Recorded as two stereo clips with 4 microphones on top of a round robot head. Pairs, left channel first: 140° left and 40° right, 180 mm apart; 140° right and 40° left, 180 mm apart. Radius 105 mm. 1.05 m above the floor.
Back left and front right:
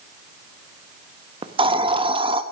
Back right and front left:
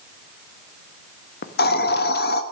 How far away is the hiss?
About 1.1 m.